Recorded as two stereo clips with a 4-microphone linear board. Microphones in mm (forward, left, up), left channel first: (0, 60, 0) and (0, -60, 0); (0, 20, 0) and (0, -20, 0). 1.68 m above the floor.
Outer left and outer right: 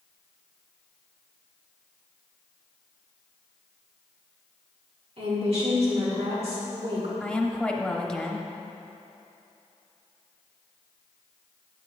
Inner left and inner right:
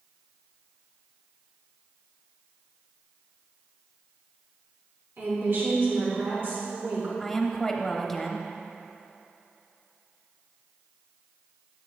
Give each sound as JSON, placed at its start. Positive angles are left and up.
{"t": 5.2, "sound": "a woman speaking", "side_deg": -55, "distance_m": 2.5}
{"t": 7.2, "sound": "a woman speaking", "side_deg": 5, "distance_m": 0.8}